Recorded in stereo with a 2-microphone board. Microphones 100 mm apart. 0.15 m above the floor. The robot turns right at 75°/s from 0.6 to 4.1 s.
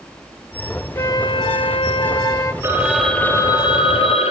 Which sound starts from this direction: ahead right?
A phone ringing, at 2.6 s.